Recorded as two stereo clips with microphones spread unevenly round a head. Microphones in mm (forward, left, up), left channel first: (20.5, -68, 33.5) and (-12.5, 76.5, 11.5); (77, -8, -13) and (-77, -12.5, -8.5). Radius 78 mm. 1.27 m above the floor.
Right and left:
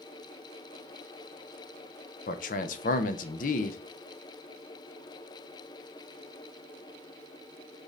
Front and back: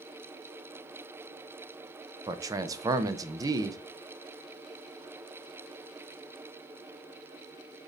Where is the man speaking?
110° right, 0.5 m.